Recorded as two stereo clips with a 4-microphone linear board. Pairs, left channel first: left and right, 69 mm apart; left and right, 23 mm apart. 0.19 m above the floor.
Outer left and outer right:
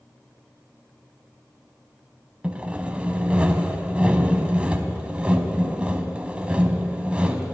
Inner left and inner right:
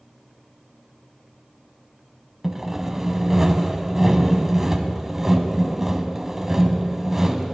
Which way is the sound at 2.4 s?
15° right (ahead or behind).